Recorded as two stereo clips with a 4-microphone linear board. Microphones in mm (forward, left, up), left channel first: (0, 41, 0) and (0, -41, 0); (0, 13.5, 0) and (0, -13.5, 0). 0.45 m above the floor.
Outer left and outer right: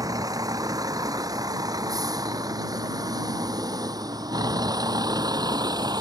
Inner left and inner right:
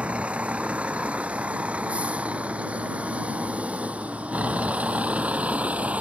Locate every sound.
0.0 s a vehicle: 50° right (ahead or behind); by 6.0 s 60° right (ahead or behind)